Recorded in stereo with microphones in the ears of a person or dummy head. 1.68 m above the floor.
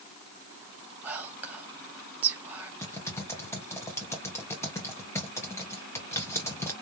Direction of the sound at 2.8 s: 15° left (ahead or behind).